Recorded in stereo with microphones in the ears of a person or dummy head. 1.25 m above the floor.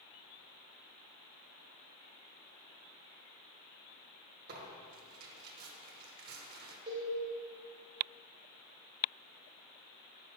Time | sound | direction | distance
4.5 | tearing paper | 55° right (ahead or behind) | 1.2 m
6.9 | a cowbell | 30° right (ahead or behind) | 1.4 m